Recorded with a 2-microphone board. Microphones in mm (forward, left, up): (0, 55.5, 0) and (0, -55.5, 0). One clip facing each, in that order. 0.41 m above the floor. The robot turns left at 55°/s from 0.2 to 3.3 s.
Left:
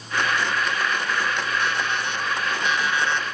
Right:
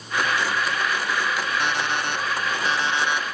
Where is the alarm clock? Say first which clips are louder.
Right 1 dB; 80° right, 1.3 m; by 3.2 s 170° right, 1.3 m.